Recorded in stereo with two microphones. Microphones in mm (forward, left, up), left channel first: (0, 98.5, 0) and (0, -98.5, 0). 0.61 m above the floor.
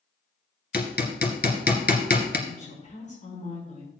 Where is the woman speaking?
40° left (ahead or behind), 5.5 m.